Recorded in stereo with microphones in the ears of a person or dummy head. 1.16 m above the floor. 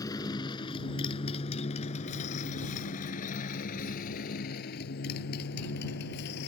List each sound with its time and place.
0.0 s a motorcycle: 20° left (ahead or behind); by 6.5 s 65° left (ahead or behind)